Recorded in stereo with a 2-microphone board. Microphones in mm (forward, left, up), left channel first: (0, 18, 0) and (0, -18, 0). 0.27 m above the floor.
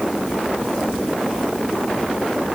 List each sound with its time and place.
Only background noise.